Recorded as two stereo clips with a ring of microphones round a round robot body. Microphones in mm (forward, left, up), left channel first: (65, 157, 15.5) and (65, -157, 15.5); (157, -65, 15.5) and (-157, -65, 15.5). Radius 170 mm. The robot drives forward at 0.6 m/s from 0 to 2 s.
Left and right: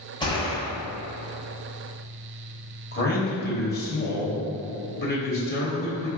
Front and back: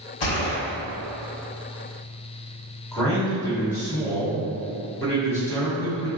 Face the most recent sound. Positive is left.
turn(degrees=75)